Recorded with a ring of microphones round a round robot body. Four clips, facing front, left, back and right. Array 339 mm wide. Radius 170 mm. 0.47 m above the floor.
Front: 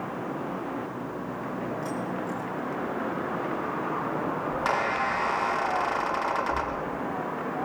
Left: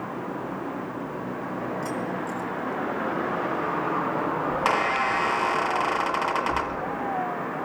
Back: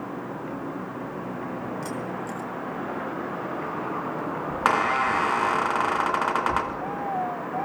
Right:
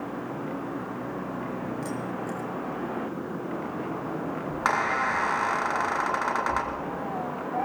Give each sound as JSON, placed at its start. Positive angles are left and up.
{"t": 1.8, "sound": "keys jangling", "azimuth_deg": 180, "distance_m": 5.5}
{"t": 4.5, "sound": "a squeak", "azimuth_deg": 170, "distance_m": 3.5}